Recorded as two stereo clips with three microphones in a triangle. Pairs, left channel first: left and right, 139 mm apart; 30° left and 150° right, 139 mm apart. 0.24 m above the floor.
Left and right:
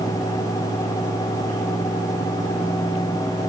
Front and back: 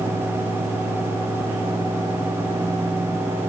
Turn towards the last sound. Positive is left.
No sound to turn to.